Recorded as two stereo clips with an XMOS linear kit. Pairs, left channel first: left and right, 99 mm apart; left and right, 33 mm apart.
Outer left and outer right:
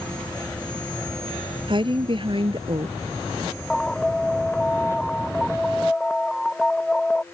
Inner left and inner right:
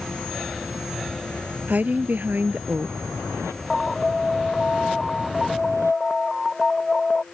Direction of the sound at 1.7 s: 55° right (ahead or behind).